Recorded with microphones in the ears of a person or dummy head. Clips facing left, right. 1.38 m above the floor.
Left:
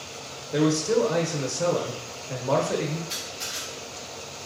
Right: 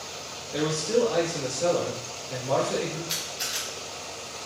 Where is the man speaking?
60° left (ahead or behind), 0.7 m.